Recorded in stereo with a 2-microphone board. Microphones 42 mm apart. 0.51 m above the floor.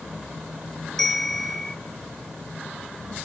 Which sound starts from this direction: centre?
A bell, at 1.0 s.